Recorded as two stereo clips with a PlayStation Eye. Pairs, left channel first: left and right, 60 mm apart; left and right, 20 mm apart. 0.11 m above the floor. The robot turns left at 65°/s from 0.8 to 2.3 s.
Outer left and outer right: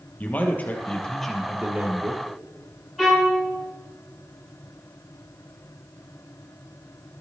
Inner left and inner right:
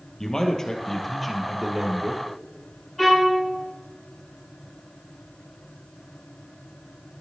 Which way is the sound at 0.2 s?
30° left.